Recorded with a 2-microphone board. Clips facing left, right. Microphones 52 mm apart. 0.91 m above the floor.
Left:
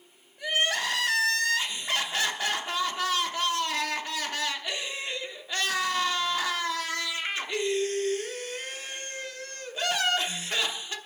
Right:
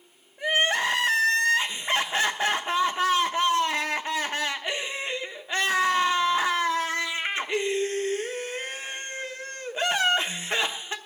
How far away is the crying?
About 1.1 m.